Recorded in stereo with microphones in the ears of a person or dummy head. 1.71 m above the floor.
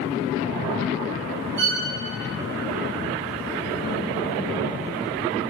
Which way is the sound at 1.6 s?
65° right (ahead or behind).